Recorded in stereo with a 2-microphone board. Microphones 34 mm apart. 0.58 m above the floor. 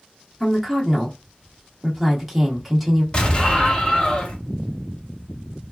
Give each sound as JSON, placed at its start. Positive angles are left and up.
{"t": 0.4, "sound": "a woman speaking", "side_deg": -5, "distance_m": 1.1}
{"t": 3.1, "sound": "an explosion", "side_deg": 30, "distance_m": 1.7}